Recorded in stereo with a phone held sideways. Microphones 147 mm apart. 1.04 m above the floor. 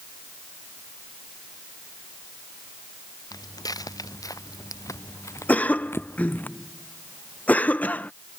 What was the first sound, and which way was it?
Footsteps, 25° left (ahead or behind).